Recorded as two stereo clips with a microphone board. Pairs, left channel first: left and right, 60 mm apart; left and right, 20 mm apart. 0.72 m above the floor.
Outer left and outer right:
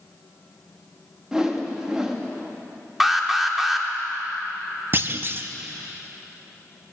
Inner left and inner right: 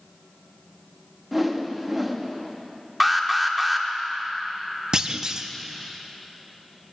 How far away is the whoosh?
About 1.1 m.